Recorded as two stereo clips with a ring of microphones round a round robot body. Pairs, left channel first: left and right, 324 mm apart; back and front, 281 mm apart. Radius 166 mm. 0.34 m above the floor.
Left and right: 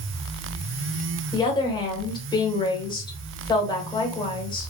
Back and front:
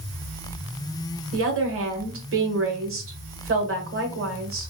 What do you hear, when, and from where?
1.3 s a woman speaking: 15° left, 1.3 m